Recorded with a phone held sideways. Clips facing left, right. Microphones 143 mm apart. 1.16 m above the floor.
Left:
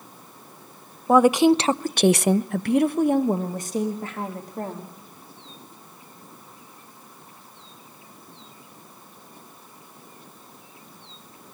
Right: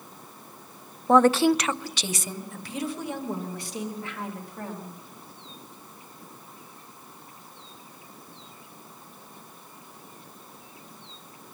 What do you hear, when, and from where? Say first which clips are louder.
1.1 s a woman speaking: left 3 dB; 5° left (ahead or behind), 0.8 m; by 4.9 s 40° left (ahead or behind), 2.5 m